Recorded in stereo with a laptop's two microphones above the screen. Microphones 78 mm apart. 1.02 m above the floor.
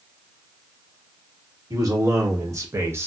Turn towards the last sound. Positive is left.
turn(degrees=-30)  # may be behind; listen again after turning